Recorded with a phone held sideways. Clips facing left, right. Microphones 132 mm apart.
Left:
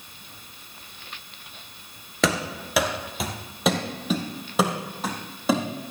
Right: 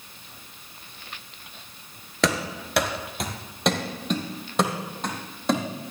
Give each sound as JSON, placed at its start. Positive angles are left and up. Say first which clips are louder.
{"t": 2.2, "sound": "running footsteps", "louder": "even", "side_deg": 0, "distance_m": 1.4}